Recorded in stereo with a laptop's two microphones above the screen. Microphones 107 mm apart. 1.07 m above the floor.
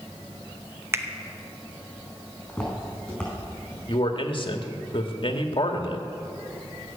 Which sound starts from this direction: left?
A man speaking, at 3.9 s.